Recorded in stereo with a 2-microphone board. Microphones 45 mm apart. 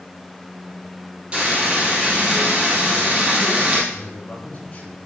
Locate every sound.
1.3 s frying: 25° right (ahead or behind), 3.5 m
3.9 s a man speaking: 30° left (ahead or behind), 3 m